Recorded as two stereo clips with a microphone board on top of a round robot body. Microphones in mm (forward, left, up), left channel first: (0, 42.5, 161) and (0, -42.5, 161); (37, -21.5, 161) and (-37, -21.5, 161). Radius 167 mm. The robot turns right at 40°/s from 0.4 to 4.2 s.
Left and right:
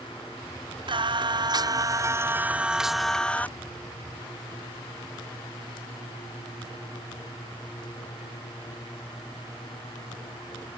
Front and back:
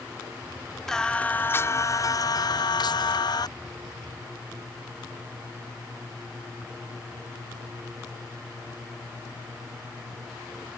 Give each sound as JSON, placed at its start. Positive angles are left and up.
{"t": 0.9, "sound": "singing", "azimuth_deg": -85}